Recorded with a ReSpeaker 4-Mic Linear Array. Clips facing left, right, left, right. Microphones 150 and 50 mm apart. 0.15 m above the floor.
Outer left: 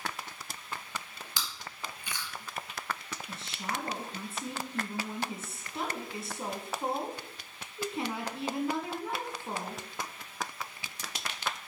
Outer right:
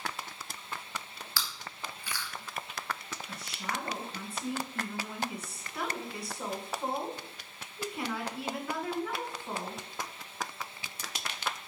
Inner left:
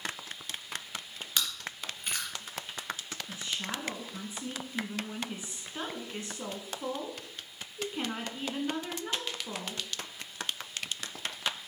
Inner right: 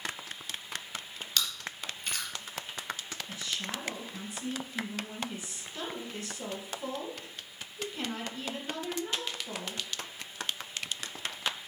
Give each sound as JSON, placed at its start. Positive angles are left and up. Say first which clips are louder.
{"t": 1.4, "sound": "chewing", "louder": "even, even", "side_deg": 20, "distance_m": 2.5}
{"t": 3.3, "sound": "a woman speaking", "louder": "outer left 1 dB, inner left 1 dB", "side_deg": 25, "distance_m": 1.7}